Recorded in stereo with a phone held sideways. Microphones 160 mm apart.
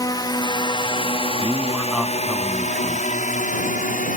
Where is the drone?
25° left (ahead or behind); by 4.2 s 55° left (ahead or behind).